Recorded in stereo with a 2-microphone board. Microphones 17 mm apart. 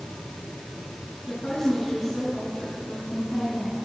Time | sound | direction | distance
1.3 | a woman speaking | 40° left (ahead or behind) | 6.5 m